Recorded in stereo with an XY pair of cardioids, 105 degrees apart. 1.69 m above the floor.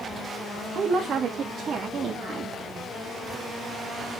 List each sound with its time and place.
0.8 s a woman speaking: 55° right, 2.5 m; by 2.5 s 45° right, 4 m